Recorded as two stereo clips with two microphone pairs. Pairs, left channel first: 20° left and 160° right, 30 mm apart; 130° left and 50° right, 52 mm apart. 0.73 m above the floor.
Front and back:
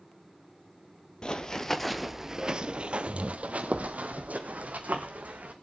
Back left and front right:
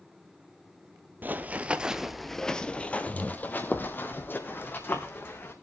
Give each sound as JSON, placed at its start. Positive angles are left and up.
{"t": 1.2, "sound": "running footsteps", "azimuth_deg": -25, "distance_m": 0.9}